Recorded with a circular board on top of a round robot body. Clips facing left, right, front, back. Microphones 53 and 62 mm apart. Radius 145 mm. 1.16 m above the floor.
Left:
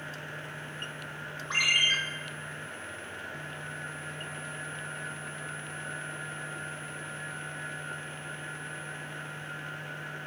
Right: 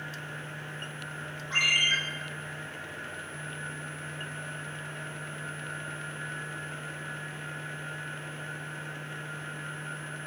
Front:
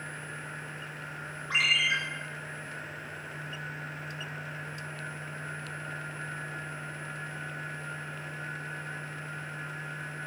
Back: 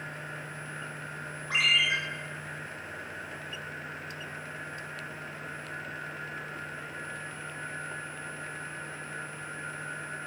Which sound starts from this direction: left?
A ringtone, at 1.5 s.